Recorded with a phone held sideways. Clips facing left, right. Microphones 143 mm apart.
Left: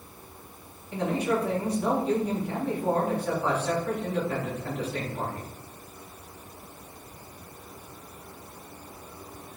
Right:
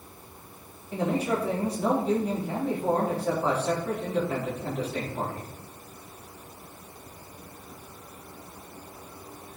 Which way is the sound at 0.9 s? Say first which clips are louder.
Even; 30° right (ahead or behind).